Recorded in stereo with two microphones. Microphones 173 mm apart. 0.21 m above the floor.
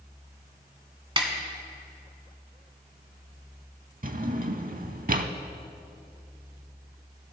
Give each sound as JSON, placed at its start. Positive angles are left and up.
{"t": 1.2, "sound": "a snare drum", "side_deg": -30, "distance_m": 1.1}
{"t": 4.0, "sound": "a drawer", "side_deg": -55, "distance_m": 0.5}